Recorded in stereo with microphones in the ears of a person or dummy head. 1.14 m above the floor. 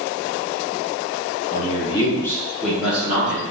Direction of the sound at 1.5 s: 35° left (ahead or behind).